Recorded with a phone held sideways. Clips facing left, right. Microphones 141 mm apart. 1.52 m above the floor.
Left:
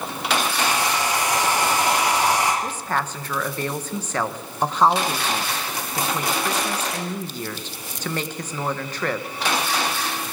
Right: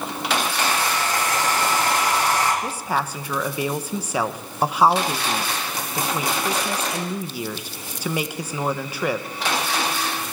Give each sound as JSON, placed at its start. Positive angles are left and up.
{"t": 0.6, "sound": "a hair dryer", "side_deg": 15, "distance_m": 7.0}
{"t": 2.6, "sound": "a woman speaking", "side_deg": -10, "distance_m": 1.1}